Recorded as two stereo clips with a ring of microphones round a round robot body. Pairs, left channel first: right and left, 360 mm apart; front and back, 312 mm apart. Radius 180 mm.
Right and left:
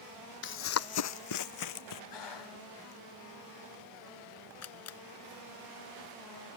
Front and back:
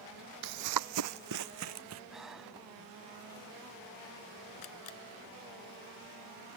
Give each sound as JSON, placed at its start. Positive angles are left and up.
{"t": 0.4, "sound": "running footsteps", "azimuth_deg": -150}
{"t": 2.1, "sound": "breathing", "azimuth_deg": -90}
{"t": 4.6, "sound": "a camera shutter", "azimuth_deg": -40}